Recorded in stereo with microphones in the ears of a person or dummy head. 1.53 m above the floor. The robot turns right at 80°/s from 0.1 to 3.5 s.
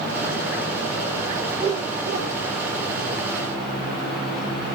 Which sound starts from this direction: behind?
A whoosh, at 1.5 s.